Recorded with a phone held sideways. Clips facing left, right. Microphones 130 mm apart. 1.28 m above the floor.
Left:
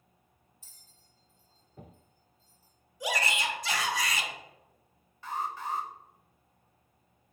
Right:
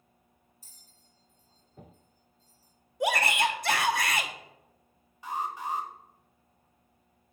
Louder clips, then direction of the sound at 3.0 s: Right 5 dB; 55° right (ahead or behind).